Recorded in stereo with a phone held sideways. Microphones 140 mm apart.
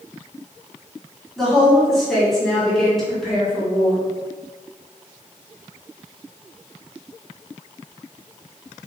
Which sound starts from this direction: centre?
A woman speaking, at 1.4 s.